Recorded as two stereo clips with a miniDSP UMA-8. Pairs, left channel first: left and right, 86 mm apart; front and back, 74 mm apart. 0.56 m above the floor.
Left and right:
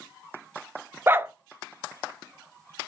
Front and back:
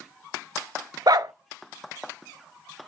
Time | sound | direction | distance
1.1 | a dog barking | 150° right | 0.5 m